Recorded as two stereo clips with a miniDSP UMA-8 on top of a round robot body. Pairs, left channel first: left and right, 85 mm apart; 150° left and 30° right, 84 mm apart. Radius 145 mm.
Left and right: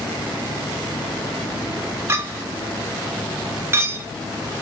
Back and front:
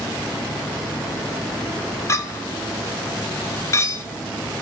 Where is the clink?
150° right, 0.6 m.